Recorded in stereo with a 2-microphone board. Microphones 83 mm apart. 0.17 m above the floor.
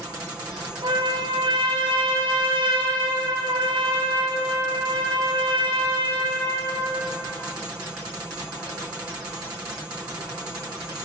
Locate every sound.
0.8 s a trumpet: 70° right (ahead or behind), 4 m